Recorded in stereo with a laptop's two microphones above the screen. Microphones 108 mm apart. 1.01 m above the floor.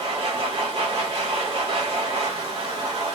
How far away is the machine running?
About 3 m.